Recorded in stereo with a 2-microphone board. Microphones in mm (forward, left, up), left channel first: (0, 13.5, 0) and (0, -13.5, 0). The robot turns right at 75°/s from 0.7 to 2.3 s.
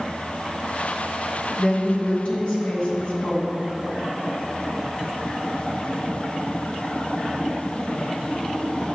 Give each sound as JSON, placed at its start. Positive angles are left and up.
{"t": 1.6, "sound": "a woman speaking", "azimuth_deg": 20, "distance_m": 2.5}